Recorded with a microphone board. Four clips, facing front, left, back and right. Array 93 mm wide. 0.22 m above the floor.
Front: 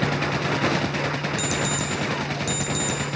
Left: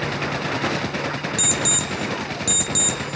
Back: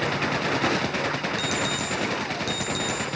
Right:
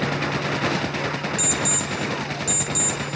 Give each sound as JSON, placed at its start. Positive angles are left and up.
{"t": 1.4, "sound": "an alarm clock", "azimuth_deg": 85, "distance_m": 2.5}